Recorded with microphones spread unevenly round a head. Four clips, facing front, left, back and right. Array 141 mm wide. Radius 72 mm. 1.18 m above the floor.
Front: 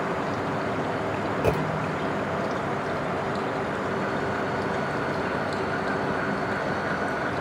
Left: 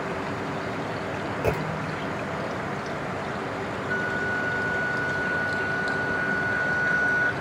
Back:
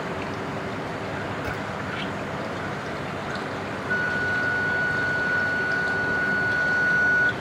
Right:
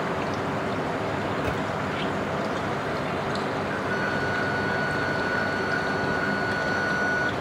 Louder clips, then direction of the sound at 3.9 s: Left 1 dB, back 1 dB; 170° left.